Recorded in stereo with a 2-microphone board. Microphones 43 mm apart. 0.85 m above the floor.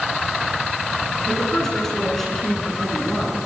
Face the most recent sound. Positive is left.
turn(degrees=10)  # may be behind; listen again after turning